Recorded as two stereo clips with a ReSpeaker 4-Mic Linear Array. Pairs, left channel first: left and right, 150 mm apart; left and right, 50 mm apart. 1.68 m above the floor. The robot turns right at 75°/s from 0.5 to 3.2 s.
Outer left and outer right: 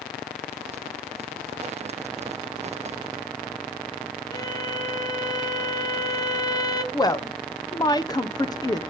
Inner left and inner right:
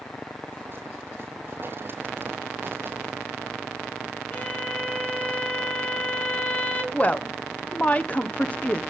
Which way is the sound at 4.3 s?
25° left (ahead or behind).